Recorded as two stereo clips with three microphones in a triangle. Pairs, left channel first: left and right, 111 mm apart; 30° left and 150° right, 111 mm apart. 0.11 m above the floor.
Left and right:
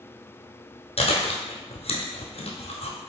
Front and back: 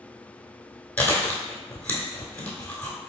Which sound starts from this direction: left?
Chewing, at 1.0 s.